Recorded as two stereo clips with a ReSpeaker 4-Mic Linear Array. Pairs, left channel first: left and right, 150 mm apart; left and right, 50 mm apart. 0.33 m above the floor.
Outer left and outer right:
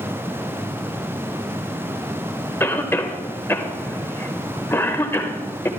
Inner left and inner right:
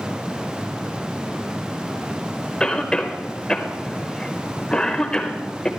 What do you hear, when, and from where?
2.6 s a cough: 15° left (ahead or behind), 0.9 m